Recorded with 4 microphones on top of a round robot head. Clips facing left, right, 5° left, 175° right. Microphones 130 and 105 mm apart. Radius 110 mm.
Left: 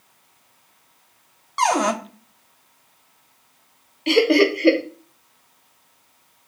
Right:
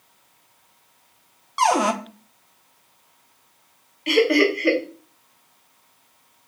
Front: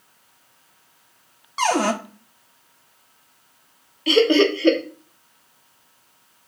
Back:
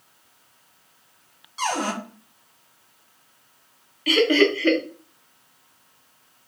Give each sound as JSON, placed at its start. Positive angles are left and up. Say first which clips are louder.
{"t": 1.6, "sound": "a cupboard door", "louder": "even, front 6 dB", "azimuth_deg": -5, "distance_m": 0.6}
{"t": 4.1, "sound": "laughter", "louder": "left 2 dB, front 2 dB", "azimuth_deg": 50, "distance_m": 0.9}